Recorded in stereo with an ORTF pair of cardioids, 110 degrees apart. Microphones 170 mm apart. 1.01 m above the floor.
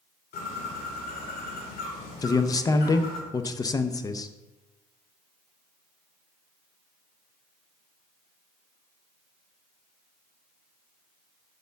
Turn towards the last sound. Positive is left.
turn(degrees=20)